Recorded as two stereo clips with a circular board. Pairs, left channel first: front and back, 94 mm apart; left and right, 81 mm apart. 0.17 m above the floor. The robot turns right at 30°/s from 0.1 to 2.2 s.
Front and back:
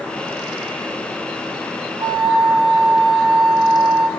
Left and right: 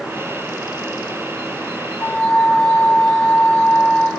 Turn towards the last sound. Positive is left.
turn(degrees=155)